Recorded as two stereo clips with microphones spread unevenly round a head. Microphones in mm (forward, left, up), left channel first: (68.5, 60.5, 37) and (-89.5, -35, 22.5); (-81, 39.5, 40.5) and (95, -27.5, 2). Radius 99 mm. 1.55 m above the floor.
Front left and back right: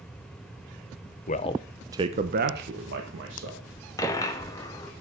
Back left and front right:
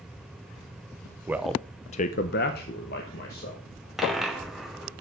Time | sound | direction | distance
1.3 | a man speaking | 65° left | 0.7 m
4.0 | a dropped coin | 85° left | 1.0 m